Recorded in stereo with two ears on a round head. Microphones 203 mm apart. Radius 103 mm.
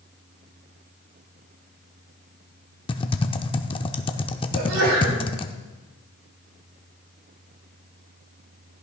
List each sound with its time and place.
2.9 s typing on a keyboard: 20° left (ahead or behind), 0.6 m
4.5 s a sneeze: 75° right (ahead or behind), 4.5 m